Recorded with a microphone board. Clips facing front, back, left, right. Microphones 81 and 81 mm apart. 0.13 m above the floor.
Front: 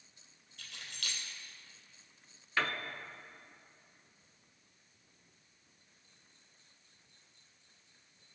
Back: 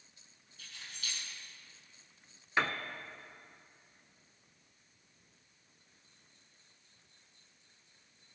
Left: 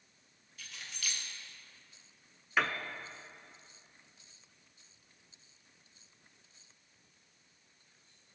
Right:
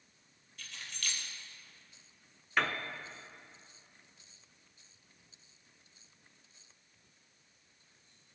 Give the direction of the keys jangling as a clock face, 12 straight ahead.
12 o'clock.